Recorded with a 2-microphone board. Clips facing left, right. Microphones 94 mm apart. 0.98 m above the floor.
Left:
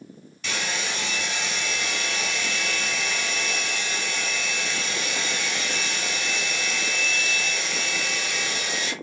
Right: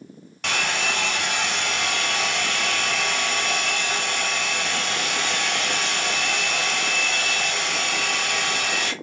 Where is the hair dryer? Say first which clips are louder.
Right 5 dB; 65° right (ahead or behind), 2.5 m.